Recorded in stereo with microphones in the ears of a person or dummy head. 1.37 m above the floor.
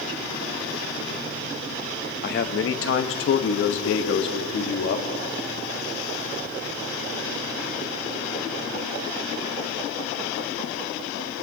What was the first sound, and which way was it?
A man speaking, 50° left (ahead or behind).